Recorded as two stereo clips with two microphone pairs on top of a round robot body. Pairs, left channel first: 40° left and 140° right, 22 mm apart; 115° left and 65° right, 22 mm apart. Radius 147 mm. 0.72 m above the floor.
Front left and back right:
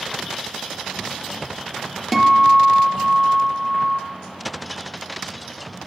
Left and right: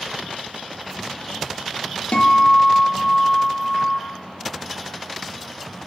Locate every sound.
2.1 s a guitar: 140° left, 1.1 m